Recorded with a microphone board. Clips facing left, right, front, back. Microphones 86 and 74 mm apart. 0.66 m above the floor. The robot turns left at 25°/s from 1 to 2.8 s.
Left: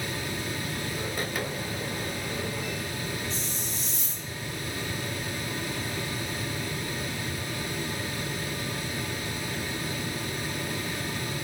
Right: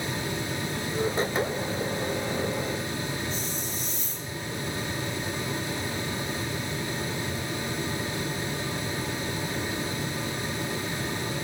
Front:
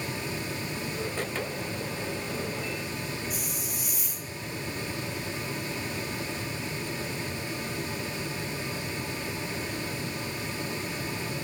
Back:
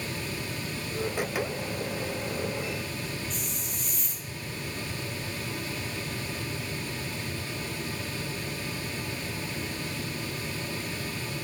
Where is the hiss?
80° left, 1.5 m.